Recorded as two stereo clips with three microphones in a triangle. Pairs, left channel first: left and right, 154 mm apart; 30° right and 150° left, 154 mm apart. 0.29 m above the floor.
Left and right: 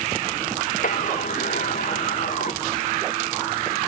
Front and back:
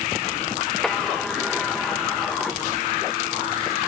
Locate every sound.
0.8 s a sliding door: 60° left